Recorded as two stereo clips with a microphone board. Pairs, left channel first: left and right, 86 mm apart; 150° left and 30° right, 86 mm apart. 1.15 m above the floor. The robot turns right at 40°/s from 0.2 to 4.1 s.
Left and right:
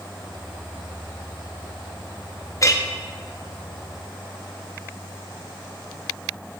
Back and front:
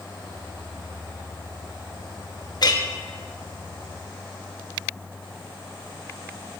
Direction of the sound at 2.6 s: 130° left.